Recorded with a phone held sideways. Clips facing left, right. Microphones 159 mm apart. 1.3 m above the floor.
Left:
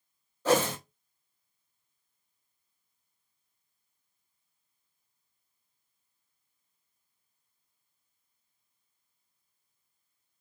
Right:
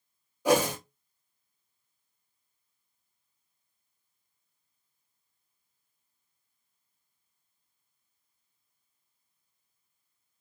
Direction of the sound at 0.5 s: 15° right (ahead or behind).